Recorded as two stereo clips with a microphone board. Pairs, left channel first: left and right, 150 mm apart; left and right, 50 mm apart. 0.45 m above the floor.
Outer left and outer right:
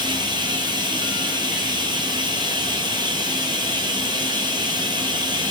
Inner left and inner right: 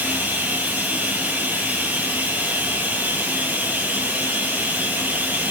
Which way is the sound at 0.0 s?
30° right (ahead or behind).